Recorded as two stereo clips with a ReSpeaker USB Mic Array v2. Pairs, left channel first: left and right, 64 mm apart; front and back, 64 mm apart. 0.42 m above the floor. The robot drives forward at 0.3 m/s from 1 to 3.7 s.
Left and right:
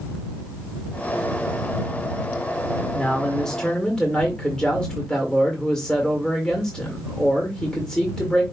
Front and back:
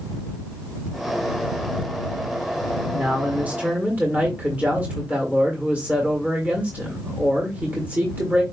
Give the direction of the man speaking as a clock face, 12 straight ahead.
7 o'clock.